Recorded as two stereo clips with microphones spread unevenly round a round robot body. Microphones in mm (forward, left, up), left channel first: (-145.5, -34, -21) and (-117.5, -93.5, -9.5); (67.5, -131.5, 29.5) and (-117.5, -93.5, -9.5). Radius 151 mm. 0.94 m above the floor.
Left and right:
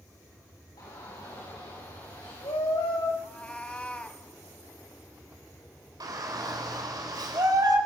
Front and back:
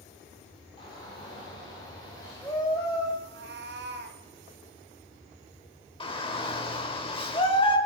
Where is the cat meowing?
170° right, 1.6 m.